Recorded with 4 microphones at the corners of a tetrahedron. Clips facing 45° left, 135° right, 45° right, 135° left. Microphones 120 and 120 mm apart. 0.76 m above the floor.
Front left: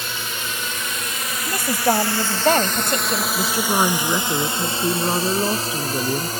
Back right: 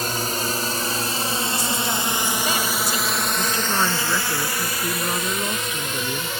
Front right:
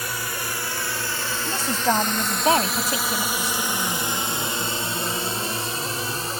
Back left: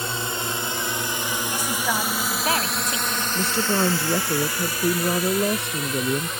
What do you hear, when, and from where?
0.0 s a drone: 165° right; by 6.4 s 5° left
1.5 s a woman speaking: 15° left
3.4 s a woman speaking: 105° left